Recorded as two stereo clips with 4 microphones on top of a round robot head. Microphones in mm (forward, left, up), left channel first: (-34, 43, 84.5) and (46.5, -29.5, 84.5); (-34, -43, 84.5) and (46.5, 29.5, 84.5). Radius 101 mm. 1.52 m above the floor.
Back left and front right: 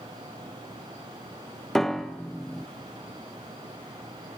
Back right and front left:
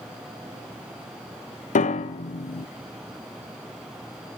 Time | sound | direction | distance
1.8 | a piano | 135° right | 0.7 m